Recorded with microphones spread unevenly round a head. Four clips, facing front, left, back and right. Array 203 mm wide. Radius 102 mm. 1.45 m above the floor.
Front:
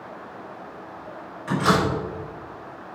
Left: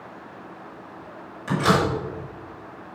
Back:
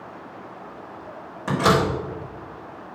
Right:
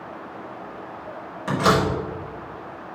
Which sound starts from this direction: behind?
A door slam, at 1.5 s.